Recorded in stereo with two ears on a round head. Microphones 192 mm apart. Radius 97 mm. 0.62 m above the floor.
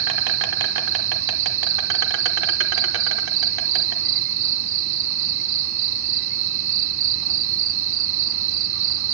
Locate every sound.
0.0 s an insect: 65° right (ahead or behind), 1.0 m